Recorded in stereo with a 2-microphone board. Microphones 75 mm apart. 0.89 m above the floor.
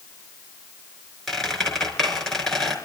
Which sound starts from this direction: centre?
A squeak, at 1.3 s.